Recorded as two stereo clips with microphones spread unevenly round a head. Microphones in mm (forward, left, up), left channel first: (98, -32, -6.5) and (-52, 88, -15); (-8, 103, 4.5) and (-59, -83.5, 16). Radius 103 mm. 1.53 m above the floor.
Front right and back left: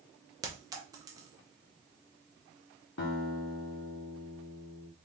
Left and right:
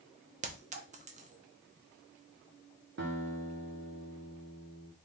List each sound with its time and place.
0.4 s a clink: 145° right, 0.8 m
3.0 s a guitar: 65° right, 1.3 m